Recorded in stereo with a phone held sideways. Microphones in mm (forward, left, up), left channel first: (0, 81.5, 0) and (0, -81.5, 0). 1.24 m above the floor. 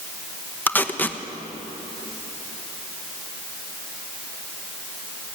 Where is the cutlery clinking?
No cutlery clinking in this recording.